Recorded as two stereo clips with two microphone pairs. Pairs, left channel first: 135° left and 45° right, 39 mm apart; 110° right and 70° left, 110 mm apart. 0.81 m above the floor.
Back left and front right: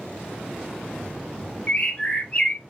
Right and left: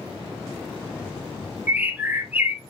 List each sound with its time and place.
1.7 s a bird: 125° left, 0.7 m